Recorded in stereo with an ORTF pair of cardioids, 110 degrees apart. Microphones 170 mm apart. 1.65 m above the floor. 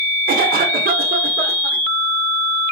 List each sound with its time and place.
0.3 s a cough: 60° right, 0.9 m